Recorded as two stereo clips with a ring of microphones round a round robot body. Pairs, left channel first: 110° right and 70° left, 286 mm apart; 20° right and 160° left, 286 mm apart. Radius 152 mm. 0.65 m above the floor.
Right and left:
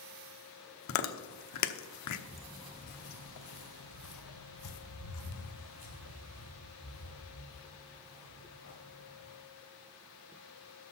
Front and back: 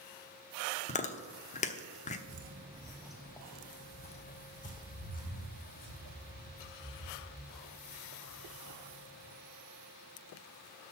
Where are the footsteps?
145° left, 0.7 m; by 9.3 s 80° right, 5.5 m.